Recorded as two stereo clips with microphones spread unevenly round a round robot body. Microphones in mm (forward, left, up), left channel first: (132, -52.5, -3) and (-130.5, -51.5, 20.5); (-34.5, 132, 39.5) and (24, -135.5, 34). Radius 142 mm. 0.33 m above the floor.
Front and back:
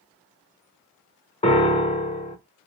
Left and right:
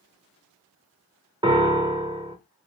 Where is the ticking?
I don't hear ticking.